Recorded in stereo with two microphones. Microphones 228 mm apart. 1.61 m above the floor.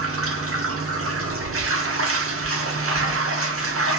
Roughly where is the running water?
Right.